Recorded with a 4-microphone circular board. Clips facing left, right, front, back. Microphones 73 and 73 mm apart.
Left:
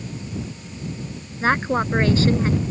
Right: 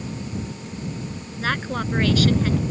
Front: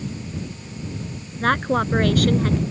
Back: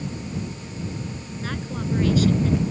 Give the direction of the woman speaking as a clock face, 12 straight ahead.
11 o'clock.